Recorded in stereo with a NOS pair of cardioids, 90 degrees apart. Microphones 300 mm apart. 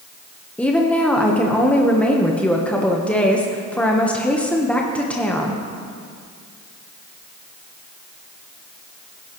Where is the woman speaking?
5° left, 1.2 m.